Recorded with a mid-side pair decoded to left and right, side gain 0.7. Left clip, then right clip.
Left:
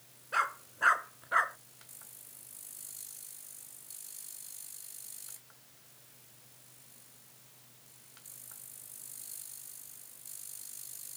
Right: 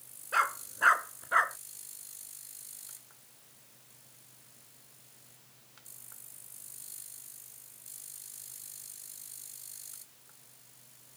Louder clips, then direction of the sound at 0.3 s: Right 3 dB; 15° right.